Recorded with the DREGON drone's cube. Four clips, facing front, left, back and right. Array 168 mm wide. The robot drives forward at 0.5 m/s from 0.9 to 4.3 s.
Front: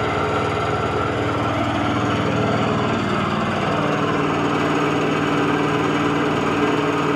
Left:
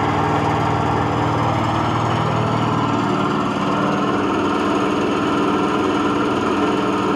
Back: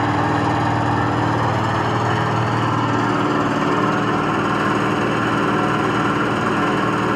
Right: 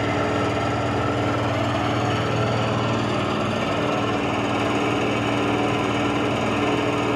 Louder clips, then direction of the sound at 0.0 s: Left 4 dB, back 2 dB; 135° left.